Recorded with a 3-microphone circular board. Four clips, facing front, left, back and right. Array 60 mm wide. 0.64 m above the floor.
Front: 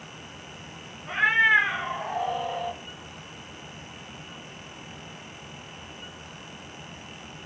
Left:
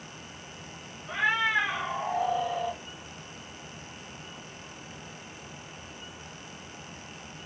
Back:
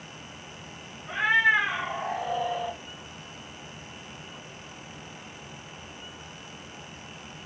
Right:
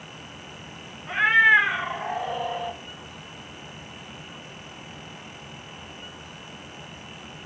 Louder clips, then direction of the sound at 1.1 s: Right 9 dB, front 2 dB; 75° right.